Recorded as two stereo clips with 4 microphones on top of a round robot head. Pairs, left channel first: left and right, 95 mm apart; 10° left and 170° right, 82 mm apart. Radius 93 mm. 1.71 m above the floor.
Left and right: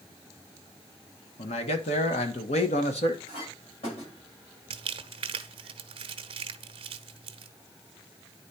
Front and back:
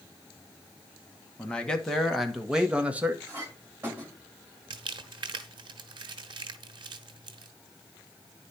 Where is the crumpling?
130° right, 0.7 m.